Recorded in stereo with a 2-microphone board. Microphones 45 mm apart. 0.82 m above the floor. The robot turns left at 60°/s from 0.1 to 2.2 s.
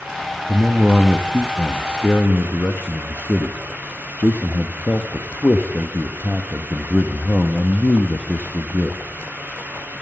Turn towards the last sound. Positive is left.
turn(degrees=130)